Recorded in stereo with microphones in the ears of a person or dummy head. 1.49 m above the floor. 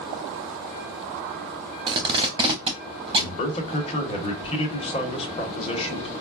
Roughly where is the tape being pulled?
Right.